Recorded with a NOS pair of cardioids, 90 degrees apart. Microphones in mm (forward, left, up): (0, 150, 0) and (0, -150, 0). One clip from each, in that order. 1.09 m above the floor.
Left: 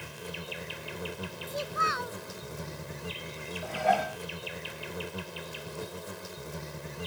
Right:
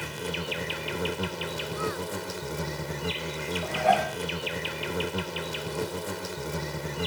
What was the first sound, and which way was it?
An insect, 50° right.